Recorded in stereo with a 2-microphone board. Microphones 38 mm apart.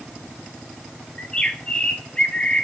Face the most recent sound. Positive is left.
turn(degrees=25)  # may be behind; listen again after turning